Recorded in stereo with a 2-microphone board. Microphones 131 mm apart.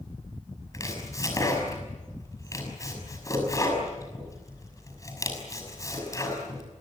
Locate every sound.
0.7 s chopping: 25° left (ahead or behind), 6 m